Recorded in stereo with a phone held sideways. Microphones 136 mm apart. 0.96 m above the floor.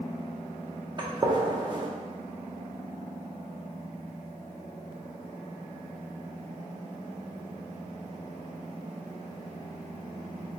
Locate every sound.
1.0 s a gunshot: 35° right (ahead or behind), 0.6 m